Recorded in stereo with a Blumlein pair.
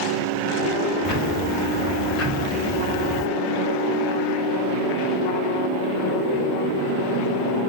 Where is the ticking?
30° left, 1.2 m.